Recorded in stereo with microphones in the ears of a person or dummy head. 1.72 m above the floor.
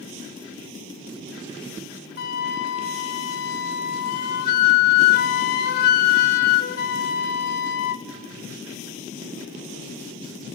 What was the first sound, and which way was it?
A flute, 50° left (ahead or behind).